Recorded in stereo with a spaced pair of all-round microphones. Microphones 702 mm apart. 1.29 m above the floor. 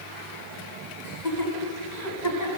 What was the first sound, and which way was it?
Laughter, 75° left (ahead or behind).